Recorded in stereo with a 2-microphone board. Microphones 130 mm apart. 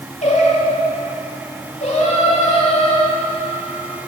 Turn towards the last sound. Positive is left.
turn(degrees=60)  # may be behind; listen again after turning